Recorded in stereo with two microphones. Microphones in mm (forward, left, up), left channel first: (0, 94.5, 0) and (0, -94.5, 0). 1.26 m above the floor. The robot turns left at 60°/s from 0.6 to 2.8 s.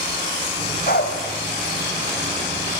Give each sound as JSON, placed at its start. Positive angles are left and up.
{"t": 0.9, "sound": "a dog barking", "side_deg": 50, "distance_m": 3.0}